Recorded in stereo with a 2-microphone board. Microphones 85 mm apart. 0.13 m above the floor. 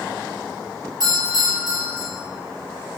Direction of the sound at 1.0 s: 55° right (ahead or behind).